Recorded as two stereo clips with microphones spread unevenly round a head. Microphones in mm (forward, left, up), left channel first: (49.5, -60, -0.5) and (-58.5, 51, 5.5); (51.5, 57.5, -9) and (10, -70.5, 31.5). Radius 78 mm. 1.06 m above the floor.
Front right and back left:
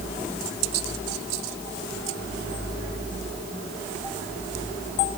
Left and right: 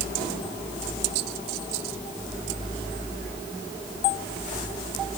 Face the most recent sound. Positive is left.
No sound to turn to.